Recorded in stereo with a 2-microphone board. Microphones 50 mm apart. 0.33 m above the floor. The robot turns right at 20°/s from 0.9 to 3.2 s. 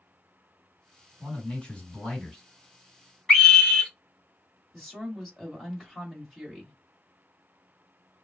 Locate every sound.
1.2 s a man speaking: 30° left (ahead or behind), 2 m; by 2.4 s 10° left (ahead or behind), 2 m
3.3 s a scream: 15° left (ahead or behind), 1.4 m
4.7 s a woman speaking: centre (ahead or behind), 1.6 m